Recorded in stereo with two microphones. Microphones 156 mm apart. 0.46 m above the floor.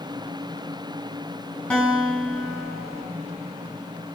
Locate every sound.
1.7 s a guitar: 10° left (ahead or behind), 5 m